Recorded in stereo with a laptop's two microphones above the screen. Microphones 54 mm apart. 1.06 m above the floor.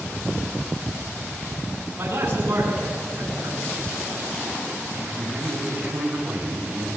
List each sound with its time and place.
2.0 s a man speaking: 40° right (ahead or behind), 9.5 m
5.0 s a man speaking: 20° right (ahead or behind), 6.5 m